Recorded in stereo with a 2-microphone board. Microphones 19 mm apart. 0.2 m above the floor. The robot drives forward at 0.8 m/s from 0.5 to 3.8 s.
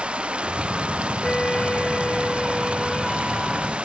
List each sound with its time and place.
0.0 s running water: 85° right; by 3.8 s 90° right
1.2 s a flute: 40° left (ahead or behind); by 3.7 s 20° left (ahead or behind)